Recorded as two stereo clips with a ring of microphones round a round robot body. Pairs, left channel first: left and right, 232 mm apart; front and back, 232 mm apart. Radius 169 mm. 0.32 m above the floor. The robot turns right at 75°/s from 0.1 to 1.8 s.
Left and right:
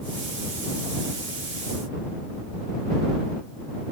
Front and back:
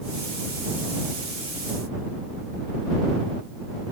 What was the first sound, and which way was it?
Only background noise.